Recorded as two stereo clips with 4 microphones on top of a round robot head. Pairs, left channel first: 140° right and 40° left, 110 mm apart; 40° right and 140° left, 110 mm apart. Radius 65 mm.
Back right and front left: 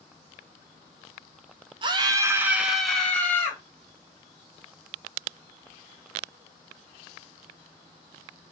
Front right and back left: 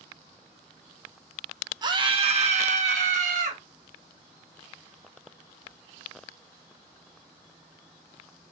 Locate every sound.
1.8 s a scream: 85° left, 1.1 m; by 3.6 s 150° left, 1.6 m